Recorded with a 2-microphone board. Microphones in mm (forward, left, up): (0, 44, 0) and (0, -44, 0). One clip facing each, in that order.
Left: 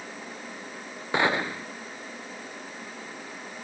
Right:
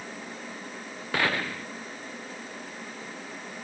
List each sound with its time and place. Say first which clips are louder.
1.1 s a gunshot: left 3 dB; 20° left (ahead or behind)